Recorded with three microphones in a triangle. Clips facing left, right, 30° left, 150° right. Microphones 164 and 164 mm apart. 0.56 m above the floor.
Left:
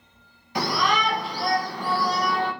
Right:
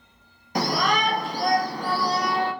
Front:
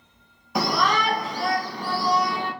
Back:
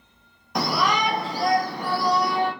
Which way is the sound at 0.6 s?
55° right.